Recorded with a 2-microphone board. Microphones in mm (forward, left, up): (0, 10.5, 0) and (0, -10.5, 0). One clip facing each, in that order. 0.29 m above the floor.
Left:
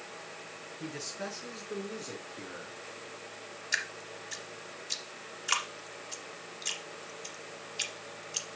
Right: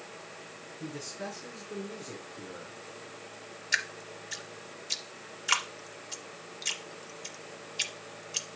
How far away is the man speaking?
About 4 m.